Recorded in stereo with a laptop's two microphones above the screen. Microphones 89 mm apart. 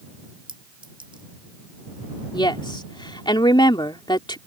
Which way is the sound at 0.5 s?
70° right (ahead or behind).